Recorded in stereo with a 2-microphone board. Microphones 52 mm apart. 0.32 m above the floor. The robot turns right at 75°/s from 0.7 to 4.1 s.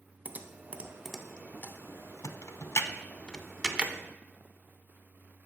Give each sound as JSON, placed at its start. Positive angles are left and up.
{"t": 0.2, "sound": "typing on a keyboard", "side_deg": -30, "distance_m": 0.5}